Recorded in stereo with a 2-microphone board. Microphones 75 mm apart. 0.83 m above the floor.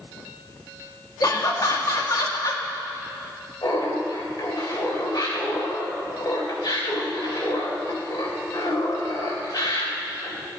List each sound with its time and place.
1.2 s laughter: 55° left (ahead or behind), 1.6 m
3.6 s laughter: 65° left (ahead or behind), 3.5 m